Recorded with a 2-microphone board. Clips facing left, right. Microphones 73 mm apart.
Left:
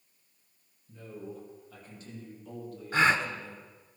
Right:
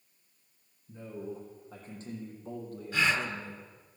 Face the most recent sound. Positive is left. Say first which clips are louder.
# left 4 dB
turn(degrees=45)  # may be behind; listen again after turning